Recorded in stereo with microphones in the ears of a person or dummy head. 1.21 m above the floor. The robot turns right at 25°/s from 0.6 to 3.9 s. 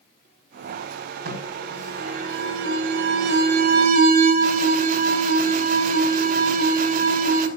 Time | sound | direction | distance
1.2 | an alarm | 115° right | 4.5 m